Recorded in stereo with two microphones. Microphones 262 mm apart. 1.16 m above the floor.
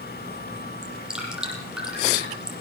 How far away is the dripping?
About 9 m.